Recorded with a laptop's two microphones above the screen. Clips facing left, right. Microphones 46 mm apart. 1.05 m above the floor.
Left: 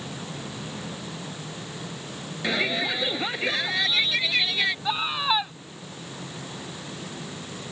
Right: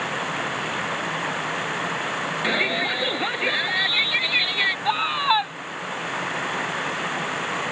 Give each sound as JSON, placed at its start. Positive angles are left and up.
{"t": 0.0, "sound": "running water", "side_deg": -65}
{"t": 2.4, "sound": "a shout", "side_deg": -10}
{"t": 4.8, "sound": "a scream", "side_deg": -15}